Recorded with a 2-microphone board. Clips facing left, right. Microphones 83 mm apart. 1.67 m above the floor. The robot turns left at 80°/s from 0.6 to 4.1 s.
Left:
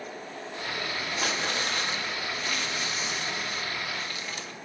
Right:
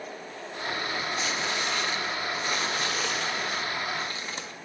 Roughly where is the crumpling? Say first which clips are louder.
Even; left.